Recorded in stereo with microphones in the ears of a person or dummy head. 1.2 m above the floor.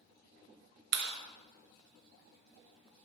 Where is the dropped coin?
I don't hear a dropped coin.